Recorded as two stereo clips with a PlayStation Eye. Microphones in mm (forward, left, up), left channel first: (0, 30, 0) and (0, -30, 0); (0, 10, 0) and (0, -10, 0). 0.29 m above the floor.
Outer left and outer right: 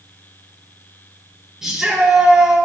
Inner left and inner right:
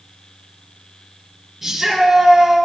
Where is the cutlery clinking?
No cutlery clinking in this recording.